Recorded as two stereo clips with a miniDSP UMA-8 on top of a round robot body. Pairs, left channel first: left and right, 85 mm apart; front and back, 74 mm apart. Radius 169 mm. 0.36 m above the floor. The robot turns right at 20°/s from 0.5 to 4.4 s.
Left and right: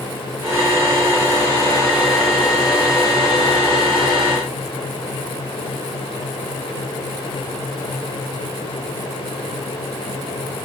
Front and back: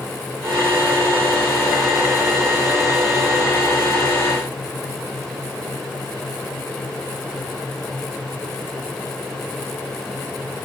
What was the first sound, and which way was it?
Only background noise.